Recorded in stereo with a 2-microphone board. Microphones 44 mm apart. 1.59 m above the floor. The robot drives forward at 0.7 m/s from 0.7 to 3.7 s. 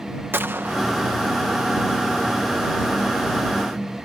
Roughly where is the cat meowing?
I don't hear a cat meowing.